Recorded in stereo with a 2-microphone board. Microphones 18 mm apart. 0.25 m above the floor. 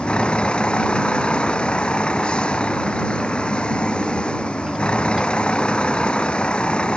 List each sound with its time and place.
0.0 s a vehicle: 70° left (ahead or behind)